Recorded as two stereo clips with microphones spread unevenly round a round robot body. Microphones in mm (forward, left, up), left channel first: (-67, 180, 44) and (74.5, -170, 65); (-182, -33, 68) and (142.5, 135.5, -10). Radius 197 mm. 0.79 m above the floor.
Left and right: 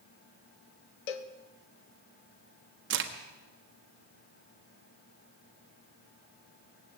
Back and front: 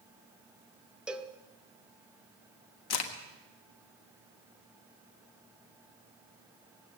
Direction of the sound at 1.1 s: 115° left.